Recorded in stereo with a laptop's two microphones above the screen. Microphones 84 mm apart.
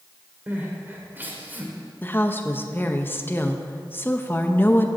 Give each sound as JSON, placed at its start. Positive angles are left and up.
{"t": 0.5, "sound": "crying", "side_deg": -25, "distance_m": 1.6}
{"t": 2.0, "sound": "a woman speaking", "side_deg": 25, "distance_m": 0.7}